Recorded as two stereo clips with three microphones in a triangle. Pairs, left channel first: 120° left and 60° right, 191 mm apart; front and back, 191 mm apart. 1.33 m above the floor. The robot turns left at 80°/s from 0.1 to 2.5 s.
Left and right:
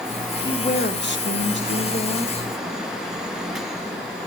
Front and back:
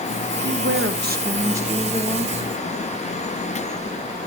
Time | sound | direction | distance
0.4 | a woman speaking | 165° right | 1.0 m